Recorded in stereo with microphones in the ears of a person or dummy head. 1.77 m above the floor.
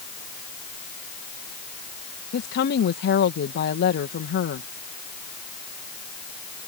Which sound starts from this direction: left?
A woman speaking, at 2.3 s.